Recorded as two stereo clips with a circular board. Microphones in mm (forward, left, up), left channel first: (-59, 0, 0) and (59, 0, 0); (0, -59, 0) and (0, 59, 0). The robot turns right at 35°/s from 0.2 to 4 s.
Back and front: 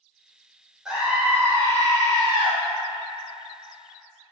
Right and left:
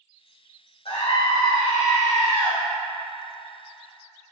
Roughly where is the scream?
Right.